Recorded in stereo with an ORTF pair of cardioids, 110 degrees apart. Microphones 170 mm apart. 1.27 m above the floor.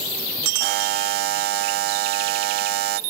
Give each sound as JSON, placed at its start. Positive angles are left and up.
{"t": 0.6, "sound": "a buzzer", "azimuth_deg": -70, "distance_m": 0.6}